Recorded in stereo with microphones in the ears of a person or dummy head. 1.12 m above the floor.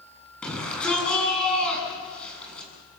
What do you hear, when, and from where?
0.4 s a shout: 5° left (ahead or behind), 8.5 m